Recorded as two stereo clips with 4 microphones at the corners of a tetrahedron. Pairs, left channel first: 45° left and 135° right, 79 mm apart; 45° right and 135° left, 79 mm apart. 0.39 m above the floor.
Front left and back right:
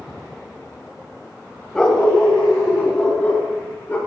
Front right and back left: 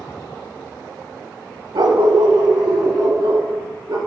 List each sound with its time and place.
1.8 s a dog barking: 125° left, 0.7 m; by 4.0 s 110° left, 2 m